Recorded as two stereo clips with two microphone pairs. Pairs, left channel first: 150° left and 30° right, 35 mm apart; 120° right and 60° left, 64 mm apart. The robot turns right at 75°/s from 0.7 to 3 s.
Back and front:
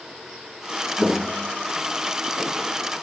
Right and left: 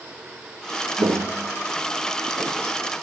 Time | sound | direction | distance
1.0 | footsteps | 45° left | 0.9 m